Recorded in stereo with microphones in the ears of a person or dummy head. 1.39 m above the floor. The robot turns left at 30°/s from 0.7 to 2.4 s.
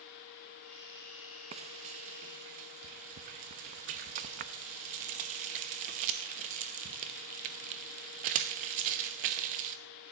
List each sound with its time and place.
1.5 s frying: 30° right (ahead or behind), 0.8 m; by 9.8 s 45° right (ahead or behind), 0.8 m